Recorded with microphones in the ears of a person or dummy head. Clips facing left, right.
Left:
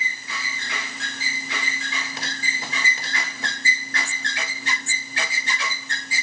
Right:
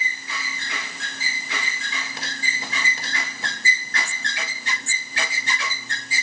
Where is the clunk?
I don't hear a clunk.